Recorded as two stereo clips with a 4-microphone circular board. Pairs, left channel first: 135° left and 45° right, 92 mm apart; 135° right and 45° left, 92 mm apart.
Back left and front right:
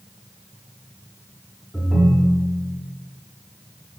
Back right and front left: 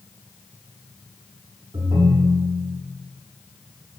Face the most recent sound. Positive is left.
turn(degrees=40)